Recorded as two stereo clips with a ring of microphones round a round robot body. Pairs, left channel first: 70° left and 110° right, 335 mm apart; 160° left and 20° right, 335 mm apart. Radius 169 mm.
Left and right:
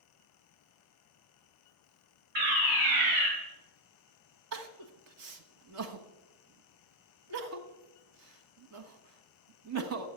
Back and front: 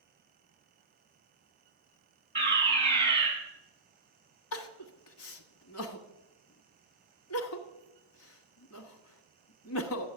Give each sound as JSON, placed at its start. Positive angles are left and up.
{"t": 2.4, "sound": "a fire alarm", "azimuth_deg": -95, "distance_m": 5.5}
{"t": 4.5, "sound": "crying", "azimuth_deg": -155, "distance_m": 1.4}